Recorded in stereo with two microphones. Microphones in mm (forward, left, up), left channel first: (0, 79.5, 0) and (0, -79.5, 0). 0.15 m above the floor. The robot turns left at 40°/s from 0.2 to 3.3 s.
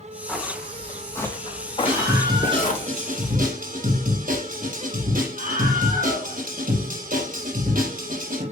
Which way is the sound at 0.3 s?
5° right (ahead or behind).